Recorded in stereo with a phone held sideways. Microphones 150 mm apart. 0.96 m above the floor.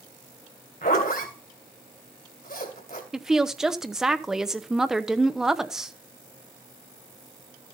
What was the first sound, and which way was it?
A zipper, 75° left (ahead or behind).